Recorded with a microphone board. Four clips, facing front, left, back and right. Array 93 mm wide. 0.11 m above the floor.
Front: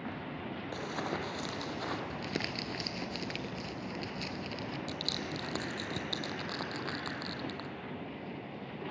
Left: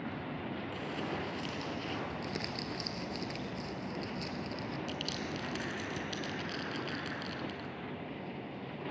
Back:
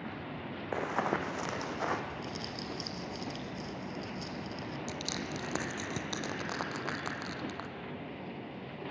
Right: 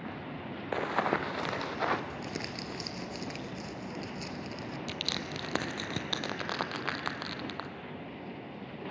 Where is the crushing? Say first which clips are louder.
Right 1 dB, even; 105° right, 1.0 m.